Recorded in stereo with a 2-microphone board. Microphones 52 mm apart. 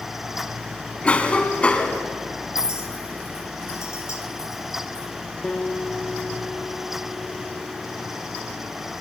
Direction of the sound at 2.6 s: 65° left (ahead or behind).